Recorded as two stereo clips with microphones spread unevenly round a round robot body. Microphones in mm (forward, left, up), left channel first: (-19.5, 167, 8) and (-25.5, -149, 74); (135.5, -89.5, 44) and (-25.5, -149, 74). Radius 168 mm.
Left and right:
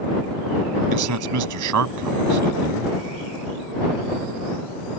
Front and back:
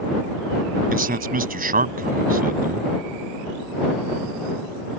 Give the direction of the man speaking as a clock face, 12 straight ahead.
4 o'clock.